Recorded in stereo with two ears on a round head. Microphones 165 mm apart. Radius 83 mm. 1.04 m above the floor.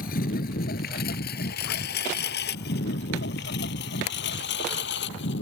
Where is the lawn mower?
50° left (ahead or behind); by 5.4 s 70° left (ahead or behind).